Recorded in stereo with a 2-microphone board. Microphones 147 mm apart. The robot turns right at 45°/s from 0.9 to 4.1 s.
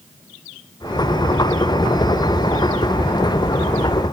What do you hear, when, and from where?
Only background noise.